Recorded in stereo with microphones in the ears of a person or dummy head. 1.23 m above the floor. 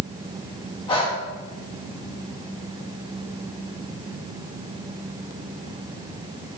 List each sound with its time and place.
0.9 s breathing: 30° left (ahead or behind), 3.5 m